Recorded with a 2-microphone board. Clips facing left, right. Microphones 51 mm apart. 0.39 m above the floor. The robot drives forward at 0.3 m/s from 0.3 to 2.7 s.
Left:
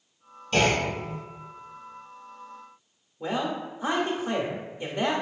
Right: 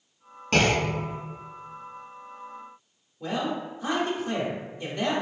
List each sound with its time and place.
0.5 s a clunk: 85° right, 0.9 m; by 1.1 s 75° right (ahead or behind), 0.9 m
3.2 s a man speaking: 25° left (ahead or behind), 0.8 m